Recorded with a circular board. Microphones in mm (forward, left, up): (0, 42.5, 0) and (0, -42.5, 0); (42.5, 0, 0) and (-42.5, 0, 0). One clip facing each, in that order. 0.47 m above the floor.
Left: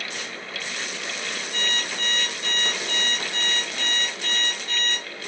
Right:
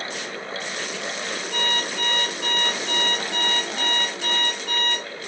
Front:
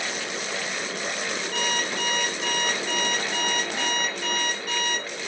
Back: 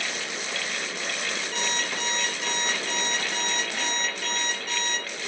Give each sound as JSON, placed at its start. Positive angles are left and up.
{"t": 1.5, "sound": "an alarm clock", "azimuth_deg": -85, "distance_m": 5.5}